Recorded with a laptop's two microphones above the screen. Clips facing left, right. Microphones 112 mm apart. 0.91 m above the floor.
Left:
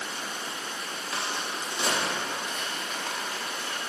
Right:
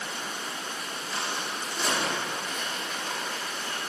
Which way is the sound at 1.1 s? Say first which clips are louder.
Even; 75° left (ahead or behind).